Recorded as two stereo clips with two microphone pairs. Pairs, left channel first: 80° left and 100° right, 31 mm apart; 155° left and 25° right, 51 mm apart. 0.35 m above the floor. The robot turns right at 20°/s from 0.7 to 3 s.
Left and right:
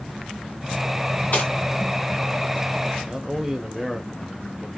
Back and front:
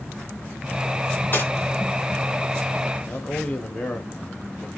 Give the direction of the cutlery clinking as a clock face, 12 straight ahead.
8 o'clock.